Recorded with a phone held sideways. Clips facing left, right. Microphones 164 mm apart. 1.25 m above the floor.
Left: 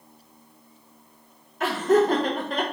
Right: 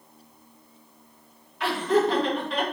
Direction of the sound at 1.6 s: 45° left (ahead or behind).